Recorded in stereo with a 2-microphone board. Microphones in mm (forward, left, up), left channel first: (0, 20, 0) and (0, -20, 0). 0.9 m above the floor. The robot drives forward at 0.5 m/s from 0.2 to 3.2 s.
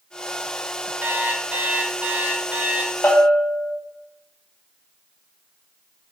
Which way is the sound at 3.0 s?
55° left (ahead or behind).